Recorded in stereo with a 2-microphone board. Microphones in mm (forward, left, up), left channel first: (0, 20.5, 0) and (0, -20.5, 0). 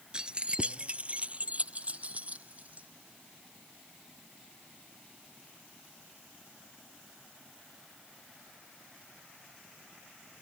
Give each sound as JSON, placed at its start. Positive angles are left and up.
{"t": 0.1, "sound": "keys jangling", "side_deg": -25}